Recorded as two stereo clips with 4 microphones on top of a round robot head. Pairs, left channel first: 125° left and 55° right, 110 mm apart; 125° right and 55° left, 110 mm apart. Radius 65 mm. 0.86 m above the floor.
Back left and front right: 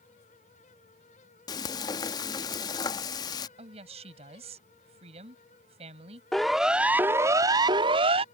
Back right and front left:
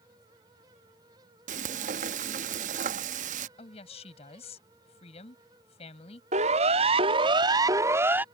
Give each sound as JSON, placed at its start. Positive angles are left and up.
{"t": 1.5, "sound": "frying", "azimuth_deg": 70}
{"t": 3.6, "sound": "a woman speaking", "azimuth_deg": -90}
{"t": 6.3, "sound": "a siren", "azimuth_deg": 40}